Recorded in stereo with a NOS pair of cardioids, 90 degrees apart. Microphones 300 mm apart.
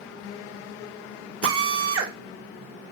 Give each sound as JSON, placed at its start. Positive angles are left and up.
{"t": 1.4, "sound": "a drill", "azimuth_deg": -50, "distance_m": 1.9}